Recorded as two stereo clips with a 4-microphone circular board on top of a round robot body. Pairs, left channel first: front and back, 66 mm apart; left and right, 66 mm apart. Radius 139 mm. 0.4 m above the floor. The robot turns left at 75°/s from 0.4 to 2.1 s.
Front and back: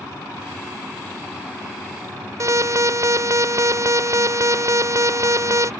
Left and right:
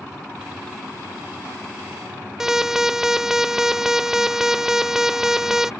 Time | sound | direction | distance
2.4 | an alarm | 170° right | ?